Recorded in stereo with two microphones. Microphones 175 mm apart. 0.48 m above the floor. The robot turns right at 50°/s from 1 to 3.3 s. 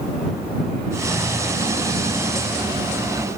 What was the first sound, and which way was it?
Only background noise.